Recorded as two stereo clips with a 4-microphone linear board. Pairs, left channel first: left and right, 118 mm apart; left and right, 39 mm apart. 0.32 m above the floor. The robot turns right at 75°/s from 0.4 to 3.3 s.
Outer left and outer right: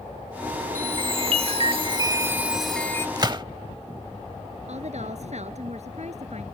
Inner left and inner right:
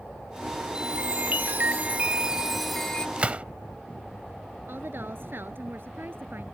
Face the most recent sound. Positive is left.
turn(degrees=-65)  # may be behind; listen again after turning